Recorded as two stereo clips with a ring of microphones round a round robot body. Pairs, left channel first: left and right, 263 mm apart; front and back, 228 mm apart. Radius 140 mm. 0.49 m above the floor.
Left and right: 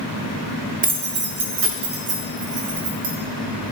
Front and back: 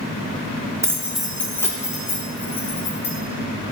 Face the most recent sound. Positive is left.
turn(degrees=-65)